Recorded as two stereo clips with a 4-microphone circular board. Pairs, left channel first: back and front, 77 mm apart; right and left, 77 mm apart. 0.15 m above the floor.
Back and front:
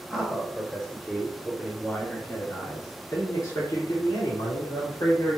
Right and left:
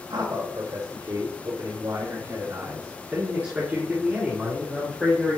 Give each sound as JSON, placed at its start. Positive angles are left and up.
{"t": 0.1, "sound": "a man speaking", "azimuth_deg": 90, "distance_m": 3.5}